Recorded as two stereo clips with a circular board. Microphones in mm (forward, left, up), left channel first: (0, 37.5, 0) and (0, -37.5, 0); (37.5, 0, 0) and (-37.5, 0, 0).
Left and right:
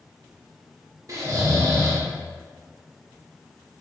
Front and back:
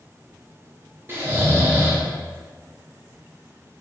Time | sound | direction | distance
1.1 | snoring | 125° right | 0.5 m